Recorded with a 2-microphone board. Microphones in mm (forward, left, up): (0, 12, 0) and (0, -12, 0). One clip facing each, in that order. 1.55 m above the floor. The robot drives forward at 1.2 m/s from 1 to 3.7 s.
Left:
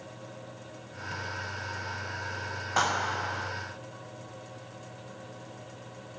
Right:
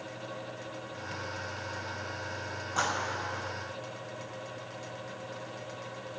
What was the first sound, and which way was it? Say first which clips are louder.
A clap: left 4 dB; 50° left (ahead or behind).